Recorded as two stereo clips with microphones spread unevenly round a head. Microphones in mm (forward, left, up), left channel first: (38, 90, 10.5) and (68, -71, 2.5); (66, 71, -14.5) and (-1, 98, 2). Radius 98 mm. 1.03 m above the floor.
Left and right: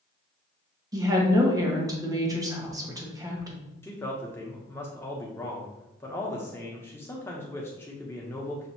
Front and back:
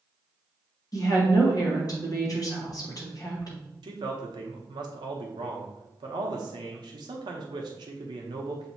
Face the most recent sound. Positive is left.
turn(degrees=175)